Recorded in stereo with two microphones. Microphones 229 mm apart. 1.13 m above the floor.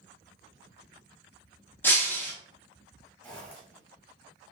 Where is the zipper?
5° left (ahead or behind), 1.0 m.